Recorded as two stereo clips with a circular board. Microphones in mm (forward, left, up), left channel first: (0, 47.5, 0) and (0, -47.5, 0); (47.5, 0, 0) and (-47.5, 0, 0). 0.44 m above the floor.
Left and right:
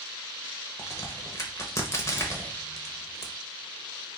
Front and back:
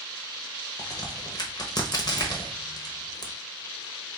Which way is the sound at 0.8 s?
35° left.